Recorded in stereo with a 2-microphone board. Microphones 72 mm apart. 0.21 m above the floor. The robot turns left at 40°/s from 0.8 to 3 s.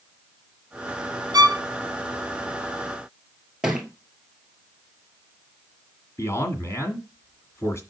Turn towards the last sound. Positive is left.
turn(degrees=40)  # may be behind; listen again after turning